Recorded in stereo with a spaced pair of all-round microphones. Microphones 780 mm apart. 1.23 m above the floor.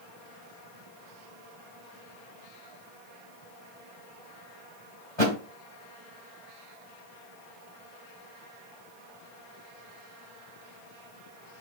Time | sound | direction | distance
5.2 | a thud | 50° left (ahead or behind) | 1.6 m